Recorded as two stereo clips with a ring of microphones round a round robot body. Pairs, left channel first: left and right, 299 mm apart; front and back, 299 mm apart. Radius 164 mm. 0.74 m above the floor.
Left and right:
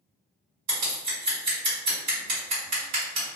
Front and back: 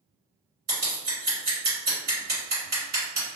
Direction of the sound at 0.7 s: 120° right.